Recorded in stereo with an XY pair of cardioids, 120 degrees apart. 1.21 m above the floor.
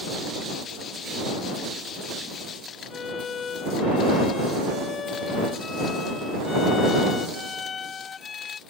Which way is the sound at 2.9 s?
40° left.